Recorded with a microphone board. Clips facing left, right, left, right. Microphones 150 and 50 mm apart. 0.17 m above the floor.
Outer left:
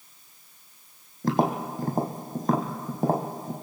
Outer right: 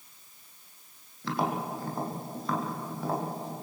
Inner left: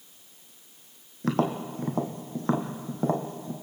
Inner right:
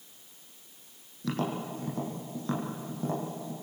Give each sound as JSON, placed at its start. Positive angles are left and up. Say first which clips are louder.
{"t": 1.2, "sound": "tapping", "louder": "outer left 6 dB, inner left 6 dB", "side_deg": 45, "distance_m": 2.5}